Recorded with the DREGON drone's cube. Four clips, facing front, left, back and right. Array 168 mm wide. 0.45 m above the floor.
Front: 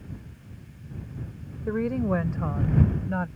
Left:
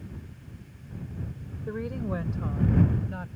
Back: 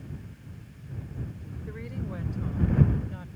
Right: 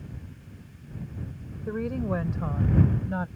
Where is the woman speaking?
10° right; by 3.3 s 30° right.